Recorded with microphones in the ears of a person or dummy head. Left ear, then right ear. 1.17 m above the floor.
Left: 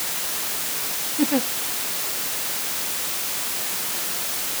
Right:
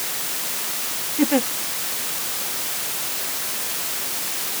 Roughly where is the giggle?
Right.